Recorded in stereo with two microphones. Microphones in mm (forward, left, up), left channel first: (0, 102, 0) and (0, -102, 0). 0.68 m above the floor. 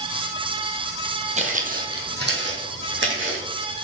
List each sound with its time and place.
1.4 s footsteps: 30° right (ahead or behind), 1.1 m; by 3.4 s 65° right (ahead or behind), 2.5 m